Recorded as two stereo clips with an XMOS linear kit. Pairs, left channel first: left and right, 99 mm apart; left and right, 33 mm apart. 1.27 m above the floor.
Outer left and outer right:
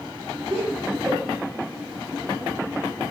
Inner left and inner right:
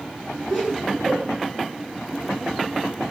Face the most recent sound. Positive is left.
turn(degrees=-15)  # may be behind; listen again after turning